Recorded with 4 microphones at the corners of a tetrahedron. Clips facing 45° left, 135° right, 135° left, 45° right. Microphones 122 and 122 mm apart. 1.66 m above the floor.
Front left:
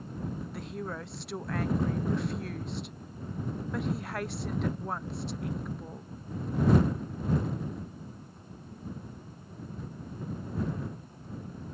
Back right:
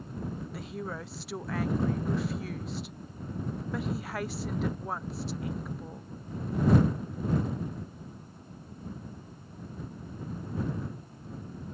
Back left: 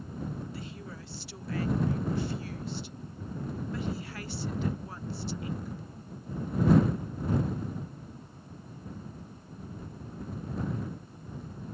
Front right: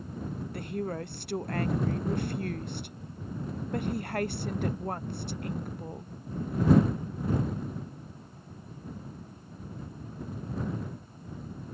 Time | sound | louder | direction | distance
0.5 | a woman speaking | even, front right 9 dB | 45° right | ?